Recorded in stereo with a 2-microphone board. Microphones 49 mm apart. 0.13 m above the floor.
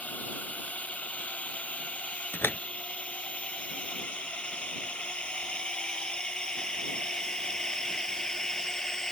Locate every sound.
0.0 s a drone: 30° left (ahead or behind); by 9.1 s 10° left (ahead or behind)
2.3 s a door slam: 50° left (ahead or behind)